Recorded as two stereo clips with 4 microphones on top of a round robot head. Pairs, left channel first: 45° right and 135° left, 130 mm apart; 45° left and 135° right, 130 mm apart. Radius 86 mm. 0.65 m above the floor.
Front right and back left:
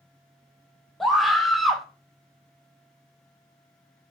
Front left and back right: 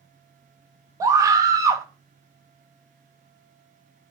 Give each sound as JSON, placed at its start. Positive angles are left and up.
{"t": 1.0, "sound": "a scream", "azimuth_deg": -135, "distance_m": 0.7}